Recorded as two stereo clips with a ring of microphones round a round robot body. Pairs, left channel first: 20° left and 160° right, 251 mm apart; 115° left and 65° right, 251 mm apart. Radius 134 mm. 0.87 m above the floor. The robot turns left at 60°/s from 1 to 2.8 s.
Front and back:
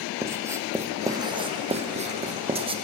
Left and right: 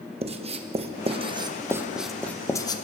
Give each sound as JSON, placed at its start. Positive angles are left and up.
{"t": 0.2, "sound": "writing", "azimuth_deg": -90, "distance_m": 0.8}